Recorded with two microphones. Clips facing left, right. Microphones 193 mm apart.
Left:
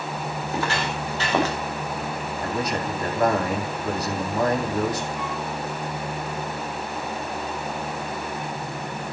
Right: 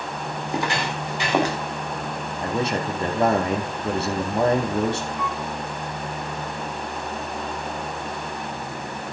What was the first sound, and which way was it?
Footsteps, 15° right (ahead or behind).